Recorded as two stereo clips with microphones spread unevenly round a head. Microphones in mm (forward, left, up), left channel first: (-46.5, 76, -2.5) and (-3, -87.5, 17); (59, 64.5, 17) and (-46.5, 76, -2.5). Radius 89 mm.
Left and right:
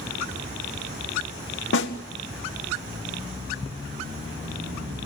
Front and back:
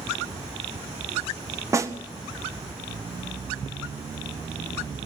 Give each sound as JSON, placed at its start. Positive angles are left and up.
{"t": 1.7, "sound": "a snare drum", "azimuth_deg": 115, "distance_m": 1.7}